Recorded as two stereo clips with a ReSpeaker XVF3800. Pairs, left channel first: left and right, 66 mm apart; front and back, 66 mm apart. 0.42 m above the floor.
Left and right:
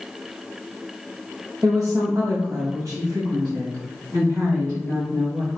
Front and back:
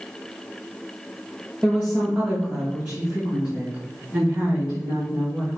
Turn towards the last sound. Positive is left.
turn(degrees=-145)